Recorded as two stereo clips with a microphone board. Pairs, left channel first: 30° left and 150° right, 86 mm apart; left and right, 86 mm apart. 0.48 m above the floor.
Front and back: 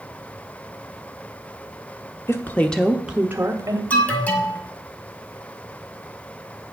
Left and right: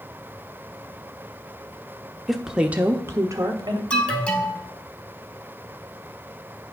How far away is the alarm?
About 1.4 m.